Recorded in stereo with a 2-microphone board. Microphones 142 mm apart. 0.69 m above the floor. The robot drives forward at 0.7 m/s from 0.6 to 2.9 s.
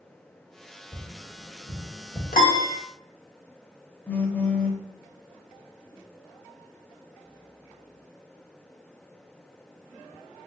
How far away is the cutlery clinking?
No cutlery clinking in this recording.